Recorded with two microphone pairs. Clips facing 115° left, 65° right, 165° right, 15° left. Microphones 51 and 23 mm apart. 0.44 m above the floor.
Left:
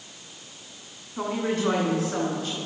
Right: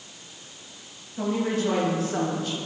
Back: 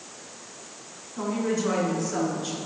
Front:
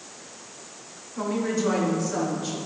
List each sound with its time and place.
1.2 s a woman speaking: 95° left, 3 m; by 2.6 s 115° left, 5 m